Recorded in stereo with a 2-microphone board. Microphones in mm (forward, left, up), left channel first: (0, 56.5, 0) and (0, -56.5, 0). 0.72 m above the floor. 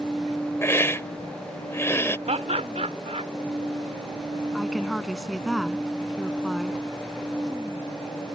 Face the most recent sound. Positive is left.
turn(degrees=0)  # may be behind; listen again after turning